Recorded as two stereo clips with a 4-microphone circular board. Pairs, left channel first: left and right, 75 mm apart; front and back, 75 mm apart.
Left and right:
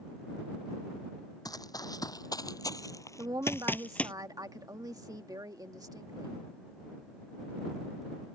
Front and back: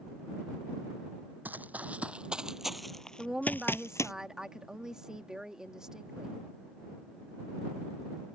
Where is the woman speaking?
100° right.